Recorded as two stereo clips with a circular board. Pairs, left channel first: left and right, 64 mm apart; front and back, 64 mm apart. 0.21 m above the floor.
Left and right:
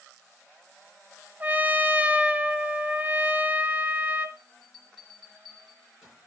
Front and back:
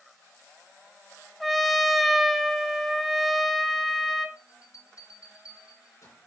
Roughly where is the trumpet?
Right.